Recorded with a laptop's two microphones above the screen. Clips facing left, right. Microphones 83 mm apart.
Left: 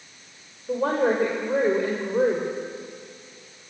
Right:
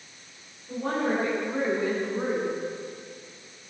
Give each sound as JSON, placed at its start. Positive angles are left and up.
{"t": 0.7, "sound": "a woman speaking", "side_deg": 80, "distance_m": 4.0}